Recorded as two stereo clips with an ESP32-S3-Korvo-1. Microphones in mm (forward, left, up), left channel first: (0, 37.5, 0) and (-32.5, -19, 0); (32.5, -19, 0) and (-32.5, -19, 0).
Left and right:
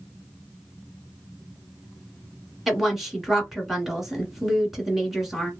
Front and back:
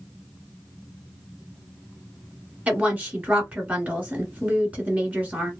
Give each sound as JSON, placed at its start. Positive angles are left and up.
{"t": 2.7, "sound": "a woman speaking", "azimuth_deg": 165, "distance_m": 1.3}